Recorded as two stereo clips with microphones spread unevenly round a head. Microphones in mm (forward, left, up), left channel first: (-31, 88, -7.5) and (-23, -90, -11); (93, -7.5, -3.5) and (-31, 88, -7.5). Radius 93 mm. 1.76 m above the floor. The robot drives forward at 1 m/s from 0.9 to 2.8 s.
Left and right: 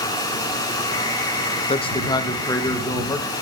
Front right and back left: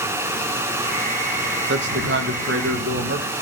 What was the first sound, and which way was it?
A man speaking, 150° left.